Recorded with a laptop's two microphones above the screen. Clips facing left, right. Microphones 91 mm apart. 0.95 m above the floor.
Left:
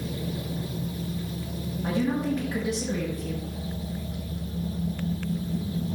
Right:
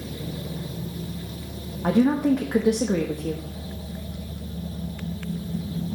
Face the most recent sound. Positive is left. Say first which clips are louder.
# right 7 dB
turn(degrees=-60)  # may be behind; listen again after turning